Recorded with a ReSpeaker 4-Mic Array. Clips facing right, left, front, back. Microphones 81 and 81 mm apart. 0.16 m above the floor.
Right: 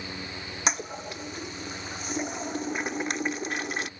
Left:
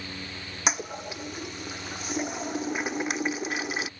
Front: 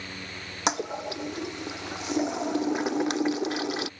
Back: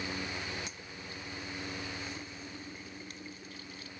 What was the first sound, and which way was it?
A toilet flushing, straight ahead.